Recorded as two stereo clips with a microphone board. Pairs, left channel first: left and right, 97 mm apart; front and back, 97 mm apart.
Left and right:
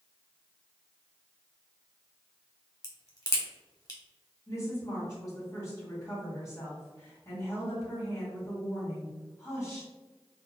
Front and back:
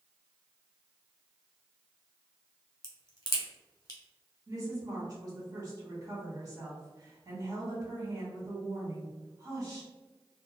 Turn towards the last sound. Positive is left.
turn(degrees=140)